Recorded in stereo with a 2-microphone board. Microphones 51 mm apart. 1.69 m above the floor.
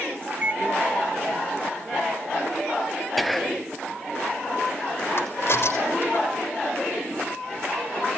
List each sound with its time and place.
0.3 s a microwave: 35° right (ahead or behind), 0.9 m
3.2 s whispering: centre (ahead or behind), 0.7 m
5.2 s a crack: 60° left (ahead or behind), 3.5 m